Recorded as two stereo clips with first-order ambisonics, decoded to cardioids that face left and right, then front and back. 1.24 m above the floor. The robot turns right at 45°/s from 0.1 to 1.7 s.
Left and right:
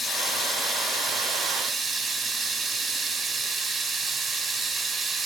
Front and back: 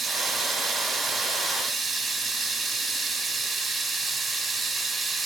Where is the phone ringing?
No phone ringing in this recording.